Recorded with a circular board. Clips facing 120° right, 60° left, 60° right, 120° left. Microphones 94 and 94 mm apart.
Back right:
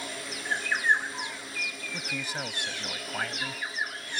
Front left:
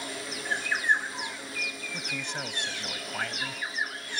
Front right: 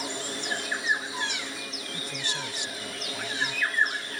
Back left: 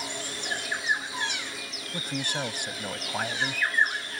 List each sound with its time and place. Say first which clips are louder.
1.9 s a man speaking: back right 2 dB, back left 5 dB; 155° left